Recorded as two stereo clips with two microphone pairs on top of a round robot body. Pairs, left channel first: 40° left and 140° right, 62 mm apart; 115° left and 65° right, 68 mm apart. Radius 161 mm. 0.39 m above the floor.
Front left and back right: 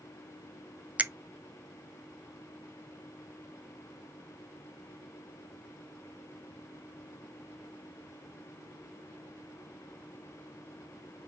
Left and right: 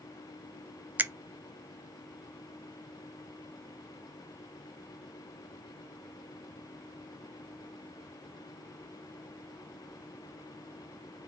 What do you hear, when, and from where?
1.0 s a finger snap: 115° right, 0.6 m